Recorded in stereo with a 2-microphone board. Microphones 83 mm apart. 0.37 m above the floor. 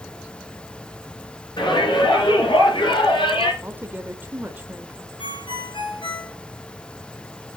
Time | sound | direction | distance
1.6 | a shout | 65° left (ahead or behind) | 5 m
3.6 | a woman speaking | 20° right (ahead or behind) | 1.1 m
5.2 | a ringtone | 80° left | 3 m